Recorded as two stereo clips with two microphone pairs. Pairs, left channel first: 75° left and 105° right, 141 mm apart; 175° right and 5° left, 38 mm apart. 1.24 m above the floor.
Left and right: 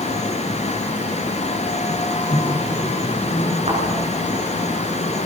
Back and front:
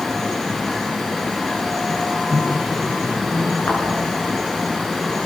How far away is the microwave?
About 2.5 m.